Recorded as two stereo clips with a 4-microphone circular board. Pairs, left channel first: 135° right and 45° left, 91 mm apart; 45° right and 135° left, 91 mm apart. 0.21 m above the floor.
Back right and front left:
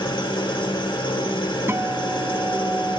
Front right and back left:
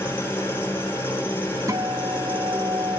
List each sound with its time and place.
0.0 s an engine running: 110° right, 5.5 m
1.7 s a guitar: 100° left, 1.3 m